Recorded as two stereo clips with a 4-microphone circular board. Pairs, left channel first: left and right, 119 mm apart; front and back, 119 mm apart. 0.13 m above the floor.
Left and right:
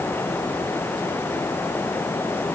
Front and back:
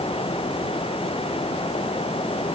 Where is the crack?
I don't hear a crack.